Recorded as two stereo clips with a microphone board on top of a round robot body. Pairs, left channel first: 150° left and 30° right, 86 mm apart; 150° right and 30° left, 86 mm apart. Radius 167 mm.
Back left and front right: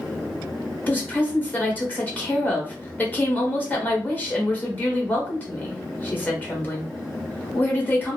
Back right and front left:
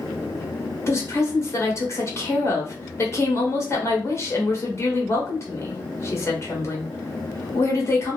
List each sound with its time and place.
0.9 s a woman speaking: 160° right, 1.3 m